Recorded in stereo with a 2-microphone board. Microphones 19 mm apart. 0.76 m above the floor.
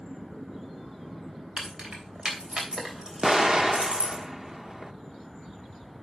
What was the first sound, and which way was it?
Keys jangling, 65° right (ahead or behind).